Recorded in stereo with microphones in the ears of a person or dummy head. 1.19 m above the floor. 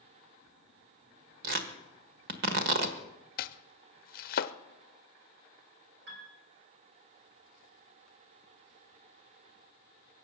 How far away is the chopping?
About 0.7 m.